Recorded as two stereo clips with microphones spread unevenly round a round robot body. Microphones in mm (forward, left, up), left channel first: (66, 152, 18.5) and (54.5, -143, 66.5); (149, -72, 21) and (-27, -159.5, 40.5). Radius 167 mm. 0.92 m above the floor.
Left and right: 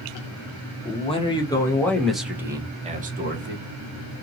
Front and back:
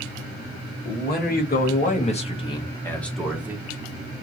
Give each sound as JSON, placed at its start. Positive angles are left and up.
{"t": 0.8, "sound": "a man speaking", "azimuth_deg": 30, "distance_m": 1.6}